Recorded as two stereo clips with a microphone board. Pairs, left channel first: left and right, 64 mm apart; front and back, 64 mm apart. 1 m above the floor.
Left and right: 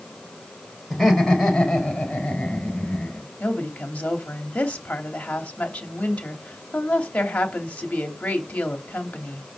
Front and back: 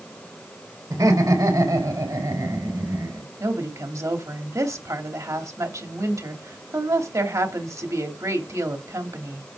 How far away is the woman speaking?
About 2.5 m.